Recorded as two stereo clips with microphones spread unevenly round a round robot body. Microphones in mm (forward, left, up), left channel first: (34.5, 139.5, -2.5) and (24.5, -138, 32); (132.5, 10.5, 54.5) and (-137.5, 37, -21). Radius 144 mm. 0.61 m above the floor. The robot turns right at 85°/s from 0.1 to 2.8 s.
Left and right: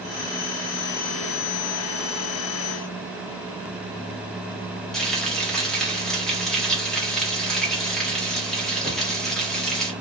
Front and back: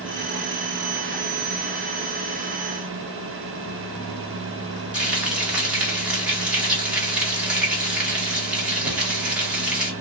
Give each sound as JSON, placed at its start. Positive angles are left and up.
{"t": 4.9, "sound": "frying", "azimuth_deg": 155, "distance_m": 1.2}